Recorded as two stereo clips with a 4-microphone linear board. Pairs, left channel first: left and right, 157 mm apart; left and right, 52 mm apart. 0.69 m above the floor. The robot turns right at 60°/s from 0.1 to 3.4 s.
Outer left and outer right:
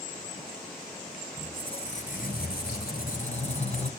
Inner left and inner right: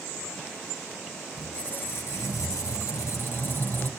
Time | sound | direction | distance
1.4 | a squeak | 15° left | 3 m